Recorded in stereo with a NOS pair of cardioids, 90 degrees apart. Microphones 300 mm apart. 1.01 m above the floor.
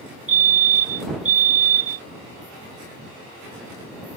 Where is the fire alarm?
45° right.